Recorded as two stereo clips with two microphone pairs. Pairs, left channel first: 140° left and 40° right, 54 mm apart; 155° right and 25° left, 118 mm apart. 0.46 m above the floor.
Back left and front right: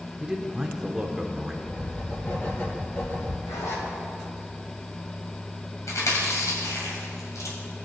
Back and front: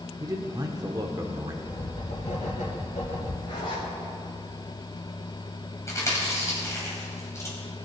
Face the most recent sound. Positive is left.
turn(degrees=140)